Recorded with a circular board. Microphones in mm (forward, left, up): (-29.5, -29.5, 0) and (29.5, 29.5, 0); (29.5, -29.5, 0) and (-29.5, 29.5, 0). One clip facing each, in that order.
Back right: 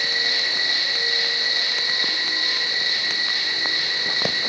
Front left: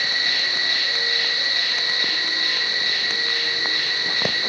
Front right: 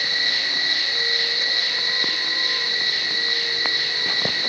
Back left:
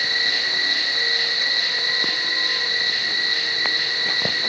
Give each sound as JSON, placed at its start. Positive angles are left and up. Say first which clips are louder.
{"t": 0.0, "sound": "an insect", "louder": "front left 1 dB, back left 2 dB", "azimuth_deg": 80, "distance_m": 1.5}